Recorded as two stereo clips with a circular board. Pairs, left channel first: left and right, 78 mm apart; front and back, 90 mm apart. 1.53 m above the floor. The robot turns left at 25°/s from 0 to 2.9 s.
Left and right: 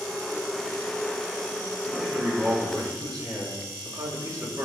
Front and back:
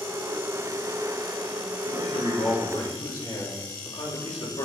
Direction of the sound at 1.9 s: 15° right.